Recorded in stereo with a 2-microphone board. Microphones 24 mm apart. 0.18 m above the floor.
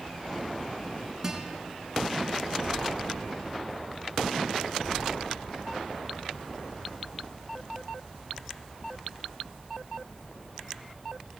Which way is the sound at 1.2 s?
15° right (ahead or behind).